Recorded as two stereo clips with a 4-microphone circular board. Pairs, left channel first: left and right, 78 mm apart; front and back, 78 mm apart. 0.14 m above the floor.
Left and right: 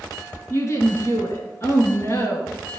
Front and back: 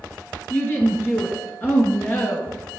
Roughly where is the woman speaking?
Ahead left.